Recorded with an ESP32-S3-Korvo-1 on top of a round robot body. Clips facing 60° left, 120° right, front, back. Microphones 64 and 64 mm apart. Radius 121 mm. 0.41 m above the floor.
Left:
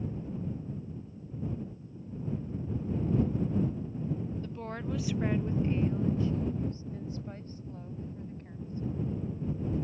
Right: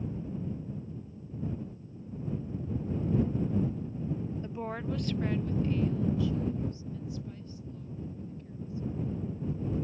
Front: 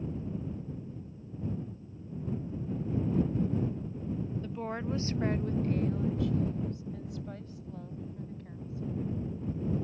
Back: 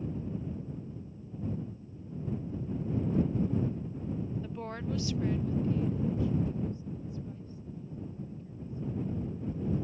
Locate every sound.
4.4 s a woman speaking: 110° right; by 9.2 s 10° left